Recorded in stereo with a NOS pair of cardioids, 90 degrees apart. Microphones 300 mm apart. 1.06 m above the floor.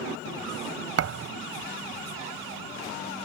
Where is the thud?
50° right.